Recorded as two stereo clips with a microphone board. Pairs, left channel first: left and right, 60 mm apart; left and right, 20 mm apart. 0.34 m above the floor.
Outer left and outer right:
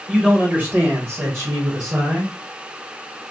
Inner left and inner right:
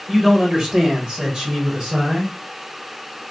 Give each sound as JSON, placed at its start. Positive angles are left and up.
{"t": 0.1, "sound": "a man speaking", "side_deg": -10, "distance_m": 1.3}